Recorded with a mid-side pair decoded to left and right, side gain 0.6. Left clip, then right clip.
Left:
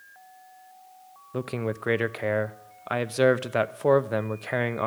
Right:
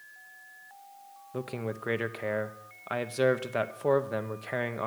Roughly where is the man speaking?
Ahead left.